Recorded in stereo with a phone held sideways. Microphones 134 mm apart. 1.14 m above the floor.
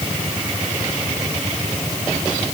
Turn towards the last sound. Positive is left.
No sound to turn to.